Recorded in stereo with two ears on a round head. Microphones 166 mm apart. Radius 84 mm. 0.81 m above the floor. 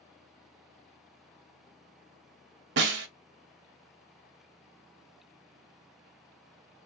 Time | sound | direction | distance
2.8 | a snare drum | 60° right (ahead or behind) | 0.6 m